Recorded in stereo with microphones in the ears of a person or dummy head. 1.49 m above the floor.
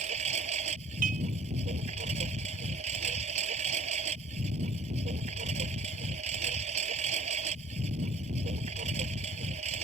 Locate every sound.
0.0 s a lawn mower: 40° right (ahead or behind)
1.0 s dishes clattering: 45° right (ahead or behind)